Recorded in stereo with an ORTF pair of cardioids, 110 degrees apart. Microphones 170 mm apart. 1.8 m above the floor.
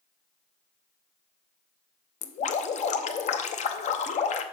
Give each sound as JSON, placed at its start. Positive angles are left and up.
{"t": 2.2, "sound": "dripping", "azimuth_deg": 40, "distance_m": 0.7}